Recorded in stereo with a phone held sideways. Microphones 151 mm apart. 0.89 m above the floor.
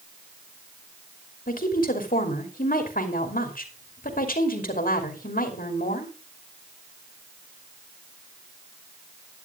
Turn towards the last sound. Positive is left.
turn(degrees=70)  # may be behind; listen again after turning